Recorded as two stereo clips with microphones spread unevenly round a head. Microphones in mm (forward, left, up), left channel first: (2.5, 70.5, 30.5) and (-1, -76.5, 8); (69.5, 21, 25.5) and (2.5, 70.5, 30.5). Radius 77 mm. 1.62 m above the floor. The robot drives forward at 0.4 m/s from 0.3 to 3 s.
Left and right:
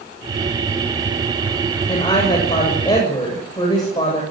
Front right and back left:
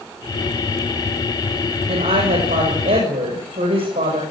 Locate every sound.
1.9 s a woman speaking: 150° left, 7 m